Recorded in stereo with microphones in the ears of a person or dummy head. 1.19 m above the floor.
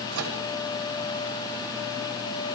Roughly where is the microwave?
Right.